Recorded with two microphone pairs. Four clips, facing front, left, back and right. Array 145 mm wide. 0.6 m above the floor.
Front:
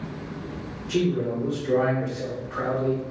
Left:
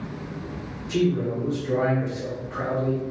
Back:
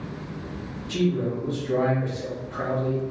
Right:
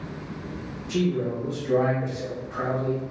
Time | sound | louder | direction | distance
0.9 | a man speaking | left 2 dB, front 1 dB | 15° left | 1.8 m